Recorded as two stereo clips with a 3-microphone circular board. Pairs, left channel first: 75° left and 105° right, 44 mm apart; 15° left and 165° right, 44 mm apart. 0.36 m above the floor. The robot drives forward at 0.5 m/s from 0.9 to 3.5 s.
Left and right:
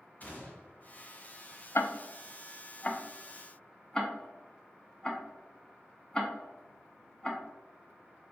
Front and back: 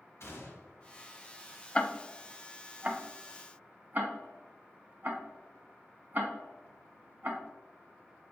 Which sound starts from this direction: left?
Ticking, at 1.8 s.